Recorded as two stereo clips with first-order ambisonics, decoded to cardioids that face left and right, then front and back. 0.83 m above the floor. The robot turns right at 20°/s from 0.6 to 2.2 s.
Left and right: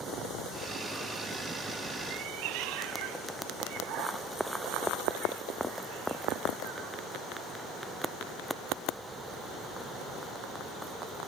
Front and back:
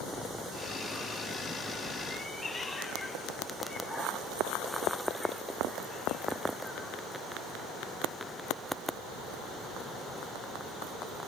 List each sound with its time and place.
2.1 s a cat meowing: 75° right, 1.4 m